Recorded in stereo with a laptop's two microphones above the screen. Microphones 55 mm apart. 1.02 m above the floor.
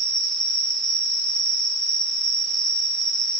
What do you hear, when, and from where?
0.0 s an insect: 10° left (ahead or behind), 1.6 m